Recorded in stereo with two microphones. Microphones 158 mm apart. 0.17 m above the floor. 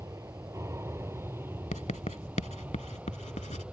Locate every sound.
0.0 s an aircraft: 20° right (ahead or behind); by 3.7 s 10° right (ahead or behind)
1.7 s writing: 50° left (ahead or behind)